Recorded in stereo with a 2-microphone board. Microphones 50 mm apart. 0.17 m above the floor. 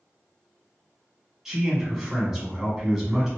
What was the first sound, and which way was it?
A man speaking, 10° right (ahead or behind).